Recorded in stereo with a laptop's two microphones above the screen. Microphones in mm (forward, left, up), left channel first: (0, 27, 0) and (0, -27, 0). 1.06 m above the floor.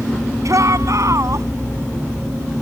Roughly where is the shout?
Right.